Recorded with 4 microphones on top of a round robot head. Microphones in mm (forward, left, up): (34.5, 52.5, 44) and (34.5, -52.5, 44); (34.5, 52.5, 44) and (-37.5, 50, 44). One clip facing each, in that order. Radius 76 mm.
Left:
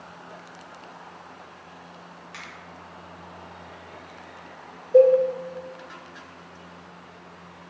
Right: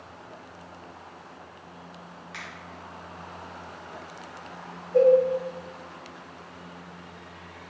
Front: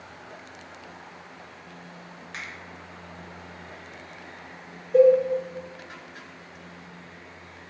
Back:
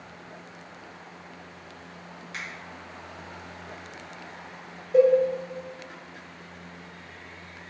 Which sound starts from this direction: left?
A cowbell, at 4.9 s.